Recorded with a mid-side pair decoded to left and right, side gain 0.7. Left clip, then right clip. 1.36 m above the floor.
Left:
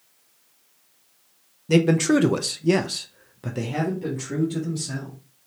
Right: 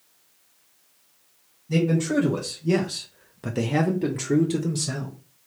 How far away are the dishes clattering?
No dishes clattering in this recording.